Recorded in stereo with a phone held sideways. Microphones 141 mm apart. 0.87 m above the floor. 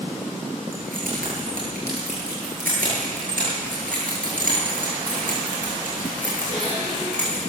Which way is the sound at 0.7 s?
90° right.